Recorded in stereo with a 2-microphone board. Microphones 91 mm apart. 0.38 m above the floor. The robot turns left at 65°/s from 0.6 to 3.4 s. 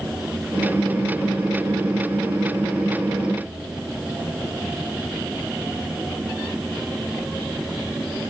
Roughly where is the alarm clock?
I don't hear an alarm clock.